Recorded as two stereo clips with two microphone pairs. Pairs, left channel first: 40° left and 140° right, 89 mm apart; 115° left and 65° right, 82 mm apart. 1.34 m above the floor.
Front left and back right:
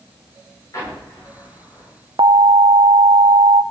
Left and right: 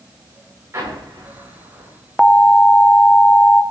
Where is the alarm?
165° right, 0.7 m.